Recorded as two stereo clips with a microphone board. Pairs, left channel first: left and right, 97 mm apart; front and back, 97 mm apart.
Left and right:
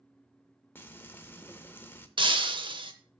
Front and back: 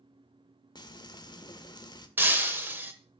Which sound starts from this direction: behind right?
Breaking glass, at 2.2 s.